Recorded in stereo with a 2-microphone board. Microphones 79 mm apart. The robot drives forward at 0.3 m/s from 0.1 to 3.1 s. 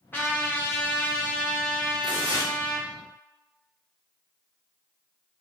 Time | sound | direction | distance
0.1 | a trumpet | 25° left (ahead or behind) | 0.9 m
2.0 | tearing paper | 55° left (ahead or behind) | 1.9 m